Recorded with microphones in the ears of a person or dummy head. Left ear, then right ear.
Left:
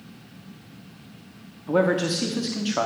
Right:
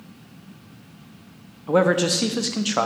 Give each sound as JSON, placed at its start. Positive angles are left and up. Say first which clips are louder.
{"t": 1.7, "sound": "a man speaking", "louder": "right 3 dB", "side_deg": -15, "distance_m": 0.5}